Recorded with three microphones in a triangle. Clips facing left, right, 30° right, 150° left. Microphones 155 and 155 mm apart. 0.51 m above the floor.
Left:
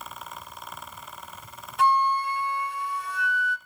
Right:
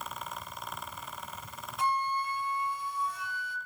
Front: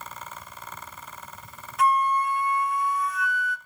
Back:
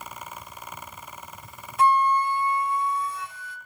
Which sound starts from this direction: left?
A flute, at 1.8 s.